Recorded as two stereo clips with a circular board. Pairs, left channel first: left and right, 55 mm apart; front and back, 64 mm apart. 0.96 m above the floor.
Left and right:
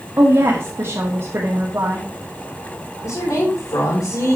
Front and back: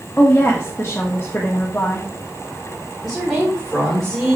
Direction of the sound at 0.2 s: 60° right.